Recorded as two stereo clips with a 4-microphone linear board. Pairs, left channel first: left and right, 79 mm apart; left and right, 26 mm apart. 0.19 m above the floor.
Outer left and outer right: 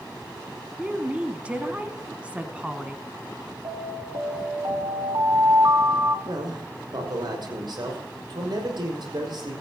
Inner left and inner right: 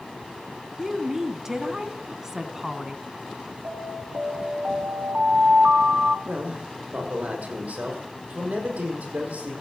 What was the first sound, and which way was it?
A woman speaking, 15° right (ahead or behind).